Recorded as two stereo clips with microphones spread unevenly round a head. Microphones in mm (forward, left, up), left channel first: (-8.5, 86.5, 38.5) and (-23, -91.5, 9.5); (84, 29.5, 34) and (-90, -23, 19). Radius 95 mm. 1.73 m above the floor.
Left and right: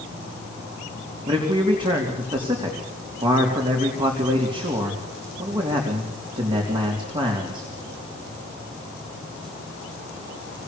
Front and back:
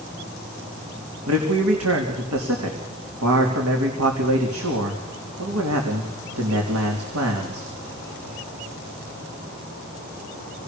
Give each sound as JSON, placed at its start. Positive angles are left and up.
{"t": 1.3, "sound": "a man speaking", "azimuth_deg": -160, "distance_m": 3.5}